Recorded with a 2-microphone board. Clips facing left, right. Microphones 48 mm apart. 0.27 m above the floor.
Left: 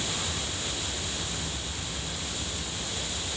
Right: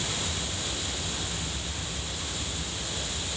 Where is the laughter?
No laughter in this recording.